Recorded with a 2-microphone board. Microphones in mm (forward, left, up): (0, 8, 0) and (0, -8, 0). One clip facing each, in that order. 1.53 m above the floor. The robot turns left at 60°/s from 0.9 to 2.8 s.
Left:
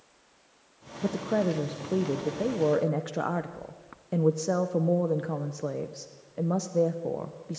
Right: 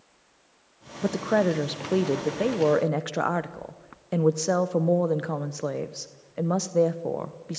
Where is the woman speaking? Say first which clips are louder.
Right 4 dB; 45° right, 0.7 m; by 7.6 s 150° right, 0.7 m.